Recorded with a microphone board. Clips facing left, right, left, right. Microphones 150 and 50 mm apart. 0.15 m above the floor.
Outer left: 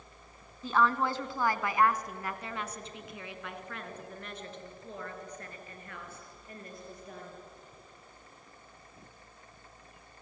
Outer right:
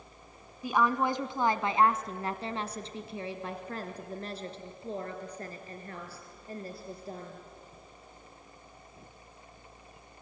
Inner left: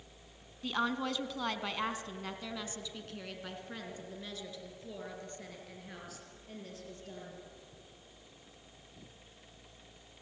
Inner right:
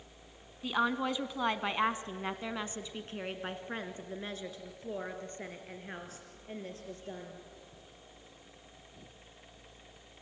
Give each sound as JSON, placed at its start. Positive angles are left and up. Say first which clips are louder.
{"t": 0.6, "sound": "a woman speaking", "louder": "outer right 1 dB, inner right 3 dB", "side_deg": -10, "distance_m": 1.3}